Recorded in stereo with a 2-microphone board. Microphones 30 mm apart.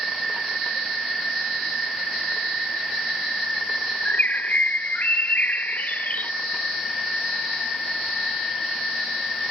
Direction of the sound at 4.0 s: 75° left (ahead or behind).